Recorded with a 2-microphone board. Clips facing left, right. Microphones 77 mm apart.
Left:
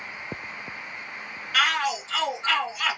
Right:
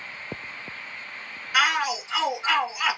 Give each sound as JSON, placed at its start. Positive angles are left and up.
{"t": 1.5, "sound": "a shout", "side_deg": -15, "distance_m": 1.1}